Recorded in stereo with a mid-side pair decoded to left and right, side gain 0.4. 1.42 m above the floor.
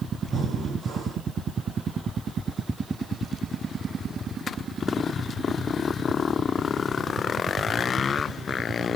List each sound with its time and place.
0.3 s breathing: 60° right, 1.5 m